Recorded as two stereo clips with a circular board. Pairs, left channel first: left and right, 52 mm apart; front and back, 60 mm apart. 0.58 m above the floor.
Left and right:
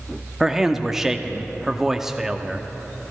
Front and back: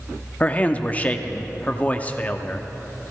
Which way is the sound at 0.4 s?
20° right.